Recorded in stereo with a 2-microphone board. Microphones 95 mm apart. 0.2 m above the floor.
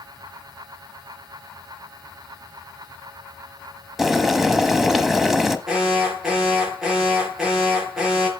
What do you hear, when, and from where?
4.0 s boiling: 5° right (ahead or behind), 0.9 m
5.7 s an alarm: 5° right (ahead or behind), 5.5 m